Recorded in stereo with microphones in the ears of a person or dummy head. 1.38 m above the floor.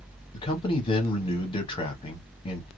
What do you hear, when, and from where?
0.3 s a man speaking: 25° left (ahead or behind), 1.0 m